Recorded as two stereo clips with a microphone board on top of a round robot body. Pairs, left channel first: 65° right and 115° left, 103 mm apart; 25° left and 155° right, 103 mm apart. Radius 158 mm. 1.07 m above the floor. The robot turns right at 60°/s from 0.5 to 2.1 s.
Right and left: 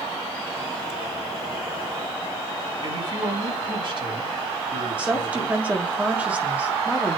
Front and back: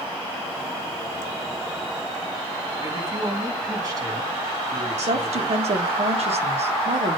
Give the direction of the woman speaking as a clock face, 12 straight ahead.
6 o'clock.